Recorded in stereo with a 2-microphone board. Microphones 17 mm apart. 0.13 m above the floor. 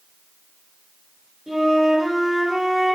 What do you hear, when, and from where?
1.5 s a flute: 40° right (ahead or behind), 1.8 m